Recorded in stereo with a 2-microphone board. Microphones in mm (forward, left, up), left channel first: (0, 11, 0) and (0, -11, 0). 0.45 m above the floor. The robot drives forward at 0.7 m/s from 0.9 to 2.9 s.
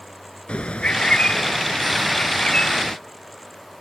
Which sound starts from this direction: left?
A bird, at 0.5 s.